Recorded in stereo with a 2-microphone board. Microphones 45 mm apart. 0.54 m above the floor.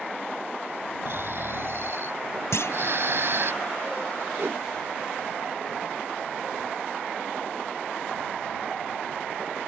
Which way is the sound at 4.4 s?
60° right (ahead or behind).